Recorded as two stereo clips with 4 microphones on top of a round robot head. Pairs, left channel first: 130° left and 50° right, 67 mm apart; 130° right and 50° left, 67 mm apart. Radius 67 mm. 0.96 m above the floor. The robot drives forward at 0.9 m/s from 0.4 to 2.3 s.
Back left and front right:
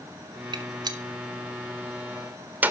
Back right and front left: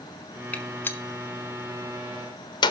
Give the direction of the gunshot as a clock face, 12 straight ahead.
2 o'clock.